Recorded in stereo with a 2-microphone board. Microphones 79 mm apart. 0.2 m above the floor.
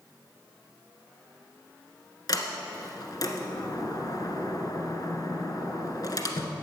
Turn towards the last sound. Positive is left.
turn(degrees=55)  # may be behind; listen again after turning